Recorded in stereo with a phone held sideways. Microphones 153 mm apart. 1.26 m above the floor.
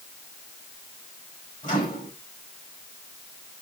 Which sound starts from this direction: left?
A microwave, at 1.6 s.